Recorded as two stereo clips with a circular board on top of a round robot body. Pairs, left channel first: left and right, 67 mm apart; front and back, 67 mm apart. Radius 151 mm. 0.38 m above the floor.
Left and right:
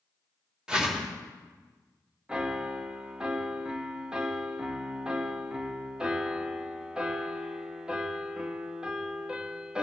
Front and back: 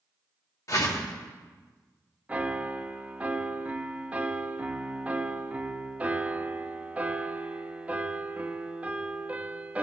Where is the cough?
I don't hear a cough.